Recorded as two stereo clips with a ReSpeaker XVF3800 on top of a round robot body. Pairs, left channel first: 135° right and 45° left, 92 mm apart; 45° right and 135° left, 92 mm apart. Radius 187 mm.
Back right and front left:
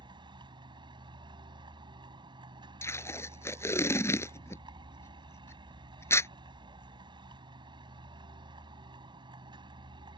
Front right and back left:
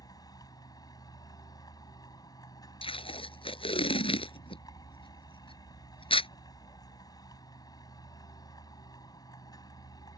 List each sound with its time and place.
0.0 s a vehicle: 5° left
2.8 s tape being pulled: 70° right